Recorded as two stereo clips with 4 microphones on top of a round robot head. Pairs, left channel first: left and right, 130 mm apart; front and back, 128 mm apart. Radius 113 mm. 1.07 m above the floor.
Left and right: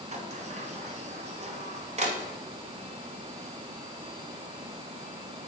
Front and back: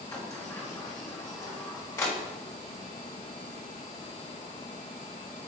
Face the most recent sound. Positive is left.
turn(degrees=-65)